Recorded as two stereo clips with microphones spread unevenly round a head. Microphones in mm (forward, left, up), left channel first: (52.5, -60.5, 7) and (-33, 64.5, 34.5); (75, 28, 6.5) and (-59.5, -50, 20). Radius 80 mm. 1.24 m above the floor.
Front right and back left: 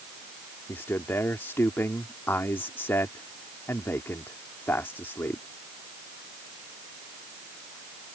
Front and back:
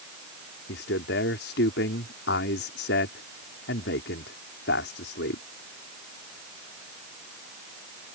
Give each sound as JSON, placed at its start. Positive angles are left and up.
{"t": 0.7, "sound": "a man speaking", "azimuth_deg": 25}